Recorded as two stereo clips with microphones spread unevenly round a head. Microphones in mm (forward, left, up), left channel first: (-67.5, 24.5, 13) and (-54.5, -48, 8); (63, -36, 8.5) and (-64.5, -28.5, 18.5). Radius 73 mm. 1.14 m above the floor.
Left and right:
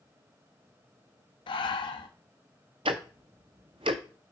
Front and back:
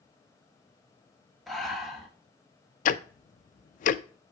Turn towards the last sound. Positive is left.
turn(degrees=-30)